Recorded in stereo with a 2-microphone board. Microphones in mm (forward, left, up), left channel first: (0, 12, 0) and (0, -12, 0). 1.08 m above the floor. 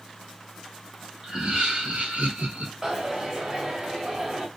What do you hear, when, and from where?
1.2 s laughter: 45° right (ahead or behind), 0.7 m; by 2.7 s 75° right (ahead or behind), 1.1 m
2.8 s a dropped coin: 20° right (ahead or behind), 1.3 m